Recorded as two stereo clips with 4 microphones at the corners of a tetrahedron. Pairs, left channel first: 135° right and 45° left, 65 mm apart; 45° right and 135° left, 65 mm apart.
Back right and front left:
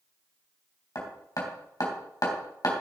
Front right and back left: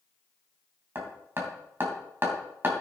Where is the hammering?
165° right, 3 m.